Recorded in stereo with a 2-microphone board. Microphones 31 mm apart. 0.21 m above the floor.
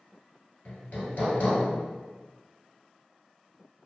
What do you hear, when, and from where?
0.7 s hammering: 60° left (ahead or behind), 1.0 m